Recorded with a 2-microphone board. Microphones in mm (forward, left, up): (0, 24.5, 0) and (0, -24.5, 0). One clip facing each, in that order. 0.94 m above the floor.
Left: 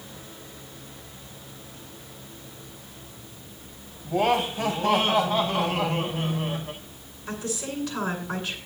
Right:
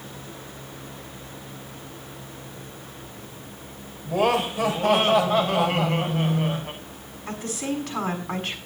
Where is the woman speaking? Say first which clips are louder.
Right 3 dB; 65° right (ahead or behind), 6.5 m.